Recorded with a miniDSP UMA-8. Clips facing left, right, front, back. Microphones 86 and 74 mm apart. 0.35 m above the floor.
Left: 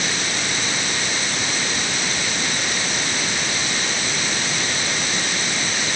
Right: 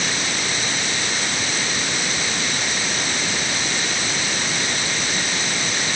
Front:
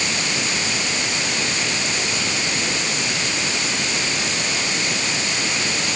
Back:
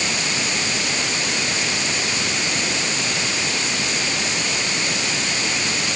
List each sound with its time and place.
Only background noise.